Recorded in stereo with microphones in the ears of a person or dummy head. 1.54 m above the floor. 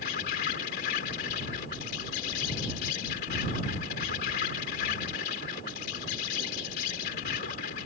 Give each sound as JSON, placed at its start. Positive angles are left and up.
{"t": 0.0, "sound": "an insect", "side_deg": 55}